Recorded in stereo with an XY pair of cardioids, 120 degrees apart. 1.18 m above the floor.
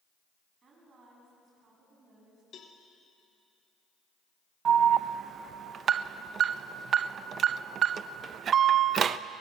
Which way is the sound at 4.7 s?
50° right.